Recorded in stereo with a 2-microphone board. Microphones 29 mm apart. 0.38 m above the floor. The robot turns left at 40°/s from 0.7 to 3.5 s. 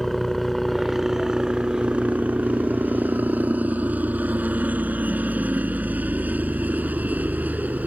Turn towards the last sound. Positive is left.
turn(degrees=-110)